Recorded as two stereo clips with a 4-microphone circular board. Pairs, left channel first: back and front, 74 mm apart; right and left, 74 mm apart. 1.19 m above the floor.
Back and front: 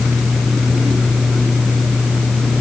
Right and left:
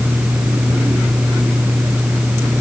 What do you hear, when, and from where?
Only background noise.